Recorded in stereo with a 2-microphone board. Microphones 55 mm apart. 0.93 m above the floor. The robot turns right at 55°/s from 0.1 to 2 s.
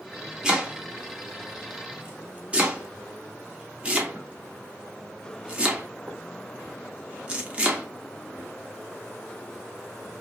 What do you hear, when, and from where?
0.4 s chopping: 15° right (ahead or behind), 0.6 m; by 7.9 s 20° right (ahead or behind), 0.6 m